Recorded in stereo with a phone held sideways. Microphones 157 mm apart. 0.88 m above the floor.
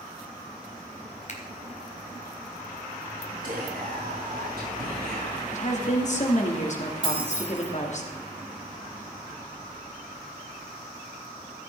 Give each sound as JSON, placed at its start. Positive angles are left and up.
{"t": 1.3, "sound": "a finger snap", "side_deg": 50, "distance_m": 1.9}
{"t": 3.4, "sound": "whispering", "side_deg": -75, "distance_m": 7.0}
{"t": 5.5, "sound": "a woman speaking", "side_deg": 50, "distance_m": 2.0}
{"t": 7.0, "sound": "keys jangling", "side_deg": -35, "distance_m": 3.5}